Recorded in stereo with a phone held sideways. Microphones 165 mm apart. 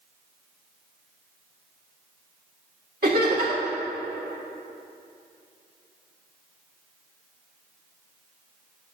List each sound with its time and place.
3.0 s laughter: 60° right (ahead or behind), 2.5 m